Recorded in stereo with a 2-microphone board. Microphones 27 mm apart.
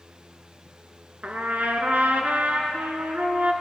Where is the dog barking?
No dog barking in this recording.